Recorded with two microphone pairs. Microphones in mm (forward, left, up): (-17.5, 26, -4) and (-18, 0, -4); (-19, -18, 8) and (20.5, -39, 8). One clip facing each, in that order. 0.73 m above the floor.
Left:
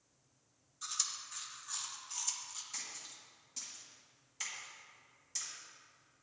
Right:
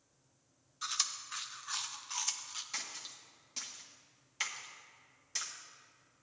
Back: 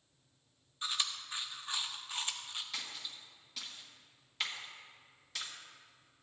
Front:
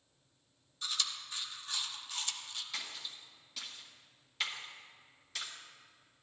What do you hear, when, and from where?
0.8 s chewing: 140° right, 0.8 m
2.7 s a splash: 115° right, 1.4 m